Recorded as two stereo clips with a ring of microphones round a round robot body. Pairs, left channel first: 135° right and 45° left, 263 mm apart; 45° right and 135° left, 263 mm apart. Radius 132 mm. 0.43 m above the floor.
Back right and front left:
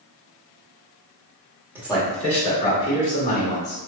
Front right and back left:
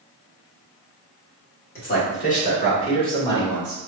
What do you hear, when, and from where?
1.8 s a man speaking: 30° right, 1.4 m; by 3.8 s 120° right, 1.6 m